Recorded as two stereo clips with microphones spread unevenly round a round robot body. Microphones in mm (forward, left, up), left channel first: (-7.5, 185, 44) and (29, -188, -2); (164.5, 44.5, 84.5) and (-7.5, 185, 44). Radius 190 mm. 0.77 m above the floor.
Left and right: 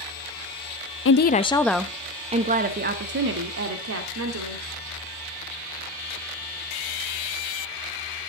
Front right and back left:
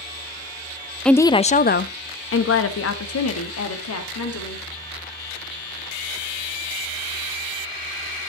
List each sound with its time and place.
1.1 s a woman speaking: 65° left, 0.7 m; by 4.7 s 35° right, 2.5 m